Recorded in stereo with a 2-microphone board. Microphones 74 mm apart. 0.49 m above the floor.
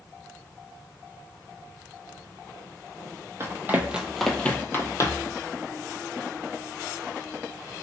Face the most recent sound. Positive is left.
turn(degrees=50)  # may be behind; listen again after turning